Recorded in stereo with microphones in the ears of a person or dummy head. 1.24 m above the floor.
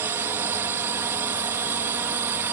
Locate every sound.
0.0 s a drone: 15° right (ahead or behind)